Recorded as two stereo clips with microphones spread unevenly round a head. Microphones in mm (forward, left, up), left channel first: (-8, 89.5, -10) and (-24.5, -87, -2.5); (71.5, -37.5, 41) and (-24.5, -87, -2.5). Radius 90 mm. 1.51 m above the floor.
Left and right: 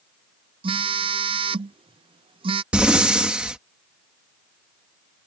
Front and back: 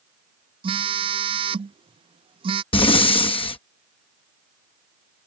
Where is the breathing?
10° right.